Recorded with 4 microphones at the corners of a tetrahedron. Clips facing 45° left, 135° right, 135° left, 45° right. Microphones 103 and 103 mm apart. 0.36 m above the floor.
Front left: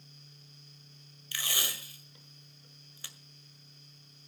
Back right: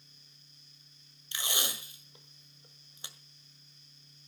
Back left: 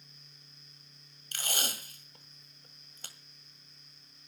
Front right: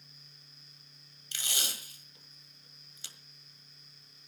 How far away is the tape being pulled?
About 1.6 m.